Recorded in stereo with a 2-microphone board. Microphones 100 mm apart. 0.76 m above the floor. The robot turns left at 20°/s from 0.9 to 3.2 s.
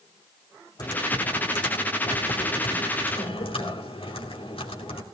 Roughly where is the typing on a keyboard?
Behind left.